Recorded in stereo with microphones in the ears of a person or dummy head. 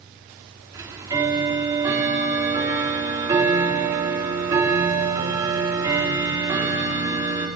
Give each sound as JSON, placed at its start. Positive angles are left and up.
{"t": 0.7, "sound": "ticking", "side_deg": -15, "distance_m": 3.5}